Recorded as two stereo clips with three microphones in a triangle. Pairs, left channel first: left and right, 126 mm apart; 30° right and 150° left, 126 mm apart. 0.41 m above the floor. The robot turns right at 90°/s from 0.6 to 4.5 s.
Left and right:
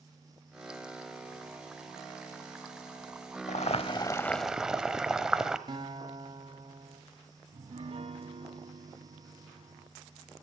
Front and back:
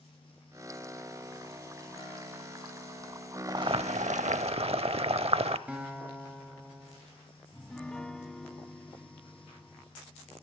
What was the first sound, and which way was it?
Boiling, 95° left.